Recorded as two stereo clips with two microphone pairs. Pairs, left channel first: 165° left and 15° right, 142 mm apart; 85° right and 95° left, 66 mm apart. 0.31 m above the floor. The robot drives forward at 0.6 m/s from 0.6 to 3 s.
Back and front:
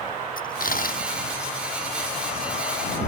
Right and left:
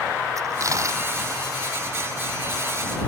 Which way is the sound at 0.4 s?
140° left.